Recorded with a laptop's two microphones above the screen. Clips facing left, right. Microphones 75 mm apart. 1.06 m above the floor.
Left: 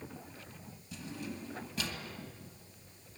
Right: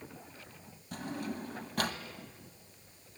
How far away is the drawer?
About 2 m.